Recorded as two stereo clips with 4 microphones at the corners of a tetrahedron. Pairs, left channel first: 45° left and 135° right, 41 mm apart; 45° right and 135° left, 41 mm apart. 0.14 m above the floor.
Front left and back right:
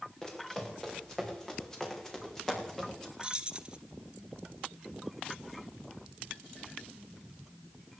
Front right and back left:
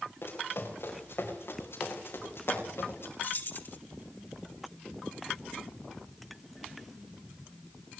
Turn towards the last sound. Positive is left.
turn(degrees=-70)